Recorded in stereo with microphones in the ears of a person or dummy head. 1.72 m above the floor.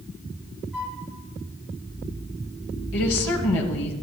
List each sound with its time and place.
0.7 s a flute: centre (ahead or behind), 3 m
2.9 s a woman speaking: 85° left, 3 m